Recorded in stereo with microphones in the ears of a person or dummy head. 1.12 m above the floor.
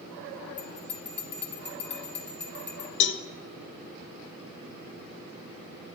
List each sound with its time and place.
0.6 s a bell: 10° left (ahead or behind), 1.6 m
3.0 s a cowbell: 50° left (ahead or behind), 0.6 m